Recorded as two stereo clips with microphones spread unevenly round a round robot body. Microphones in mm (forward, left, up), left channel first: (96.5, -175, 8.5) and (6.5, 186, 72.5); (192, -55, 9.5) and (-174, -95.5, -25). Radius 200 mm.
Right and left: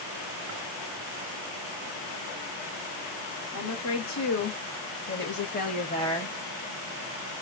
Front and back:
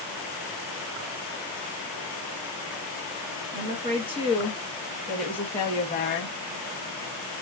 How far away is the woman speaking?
About 1.6 m.